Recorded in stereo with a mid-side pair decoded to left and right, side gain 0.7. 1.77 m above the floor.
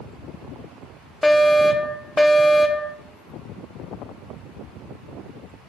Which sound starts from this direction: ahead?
A fire alarm, at 1.2 s.